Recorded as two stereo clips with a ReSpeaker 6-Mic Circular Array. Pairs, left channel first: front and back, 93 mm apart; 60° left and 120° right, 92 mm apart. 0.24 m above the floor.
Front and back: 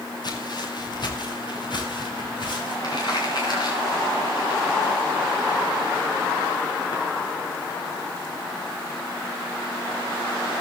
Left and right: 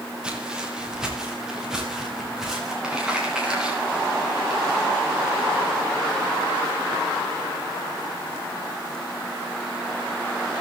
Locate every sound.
0.2 s footsteps: 40° right, 5 m; by 2.7 s 35° right, 8 m
2.8 s crumpling: 40° right, 8.5 m